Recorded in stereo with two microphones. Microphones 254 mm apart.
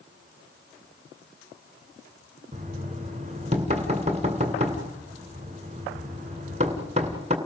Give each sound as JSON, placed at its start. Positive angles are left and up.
{"t": 2.5, "sound": "knocking", "side_deg": -25, "distance_m": 2.0}